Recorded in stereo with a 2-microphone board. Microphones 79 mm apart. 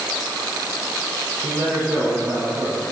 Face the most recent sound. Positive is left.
turn(degrees=-40)  # may be behind; listen again after turning